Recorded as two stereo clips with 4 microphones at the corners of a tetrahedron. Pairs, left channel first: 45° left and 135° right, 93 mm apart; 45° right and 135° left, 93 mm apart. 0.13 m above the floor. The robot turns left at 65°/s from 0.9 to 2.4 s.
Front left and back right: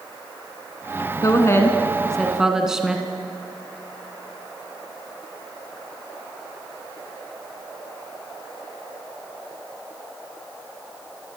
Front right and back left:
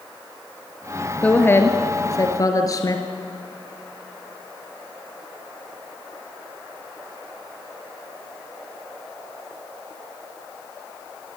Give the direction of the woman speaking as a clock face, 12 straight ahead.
11 o'clock.